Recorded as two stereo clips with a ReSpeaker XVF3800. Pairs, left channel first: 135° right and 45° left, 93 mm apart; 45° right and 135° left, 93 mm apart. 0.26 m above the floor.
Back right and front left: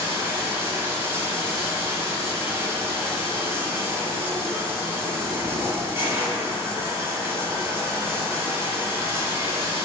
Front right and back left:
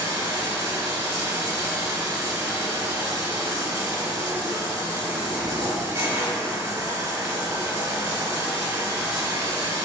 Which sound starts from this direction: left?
Running water, at 0.0 s.